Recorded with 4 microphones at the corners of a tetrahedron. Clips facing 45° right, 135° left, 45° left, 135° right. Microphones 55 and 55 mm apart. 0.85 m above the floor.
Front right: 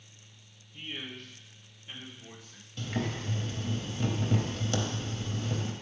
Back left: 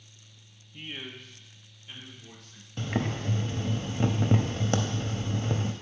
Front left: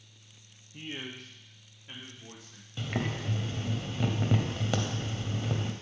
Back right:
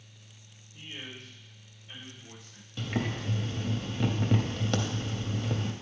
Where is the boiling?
125° left, 0.7 m.